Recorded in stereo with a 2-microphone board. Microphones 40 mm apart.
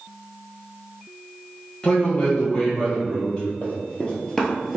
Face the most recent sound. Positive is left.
turn(degrees=-5)  # may be behind; listen again after turning